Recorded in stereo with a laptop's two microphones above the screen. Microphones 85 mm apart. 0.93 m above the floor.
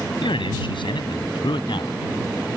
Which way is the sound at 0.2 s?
80° left.